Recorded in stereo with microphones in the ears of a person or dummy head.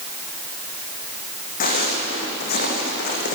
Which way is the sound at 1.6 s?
50° left (ahead or behind).